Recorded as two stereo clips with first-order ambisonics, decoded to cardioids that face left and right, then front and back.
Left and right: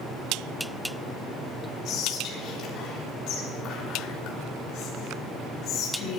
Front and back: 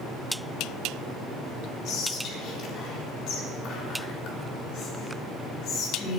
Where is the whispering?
45° left, 3.5 m.